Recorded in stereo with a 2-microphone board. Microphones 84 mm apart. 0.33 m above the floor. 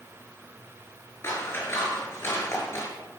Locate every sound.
1.2 s scissors: 30° left (ahead or behind), 5 m